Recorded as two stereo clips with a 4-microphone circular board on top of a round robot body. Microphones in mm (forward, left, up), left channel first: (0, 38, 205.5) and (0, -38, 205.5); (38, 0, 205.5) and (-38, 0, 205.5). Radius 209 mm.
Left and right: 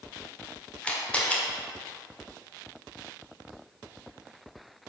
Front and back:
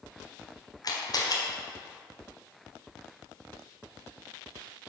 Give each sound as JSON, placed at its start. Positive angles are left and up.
{"t": 0.8, "sound": "a camera shutter", "azimuth_deg": 20, "distance_m": 1.8}